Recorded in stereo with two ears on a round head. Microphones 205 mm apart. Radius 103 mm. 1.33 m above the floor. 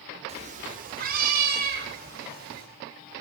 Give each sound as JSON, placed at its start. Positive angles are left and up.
{"t": 0.3, "sound": "a cat meowing", "side_deg": -25, "distance_m": 1.1}